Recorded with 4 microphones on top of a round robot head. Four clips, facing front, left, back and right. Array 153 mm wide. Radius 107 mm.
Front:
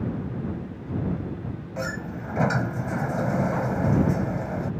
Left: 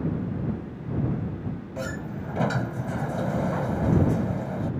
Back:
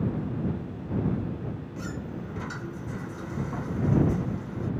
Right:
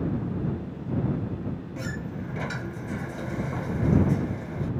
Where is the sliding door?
30° left.